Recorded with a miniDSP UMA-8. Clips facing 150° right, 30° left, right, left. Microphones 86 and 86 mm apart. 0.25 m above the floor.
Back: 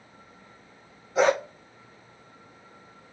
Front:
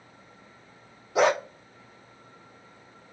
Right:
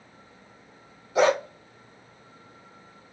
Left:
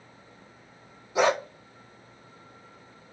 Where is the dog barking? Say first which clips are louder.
Even, right 2 dB; 15° left, 3 m.